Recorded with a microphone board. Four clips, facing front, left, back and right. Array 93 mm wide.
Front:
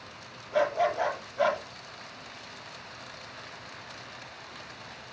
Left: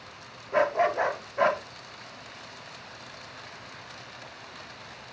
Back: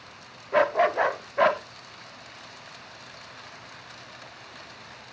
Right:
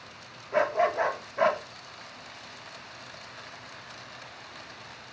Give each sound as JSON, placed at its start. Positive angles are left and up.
{"t": 0.5, "sound": "a dog barking", "azimuth_deg": 180, "distance_m": 0.5}